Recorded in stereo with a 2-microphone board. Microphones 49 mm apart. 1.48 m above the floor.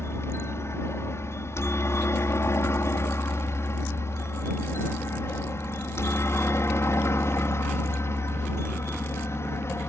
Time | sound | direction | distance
0.0 | a helicopter | 65° left (ahead or behind) | ?